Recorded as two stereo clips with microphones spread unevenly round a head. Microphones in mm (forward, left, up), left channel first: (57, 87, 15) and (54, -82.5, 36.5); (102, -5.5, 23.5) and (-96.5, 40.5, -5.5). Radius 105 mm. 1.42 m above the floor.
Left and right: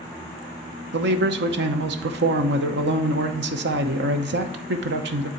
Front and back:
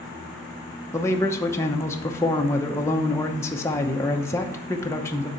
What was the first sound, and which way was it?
A man speaking, 90° right.